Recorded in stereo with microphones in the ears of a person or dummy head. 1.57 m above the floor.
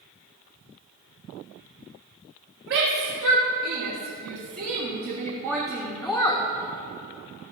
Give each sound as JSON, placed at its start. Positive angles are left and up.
{"t": 2.7, "sound": "a shout", "side_deg": -65, "distance_m": 3.0}